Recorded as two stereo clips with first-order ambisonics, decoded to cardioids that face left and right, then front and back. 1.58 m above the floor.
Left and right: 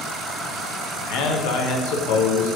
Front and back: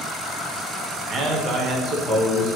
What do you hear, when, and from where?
1.1 s a man speaking: 115° left, 1.2 m